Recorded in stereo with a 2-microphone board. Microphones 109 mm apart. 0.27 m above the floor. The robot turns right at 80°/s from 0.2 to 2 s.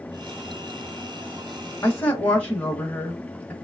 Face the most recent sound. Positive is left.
turn(degrees=20)  # may be behind; listen again after turning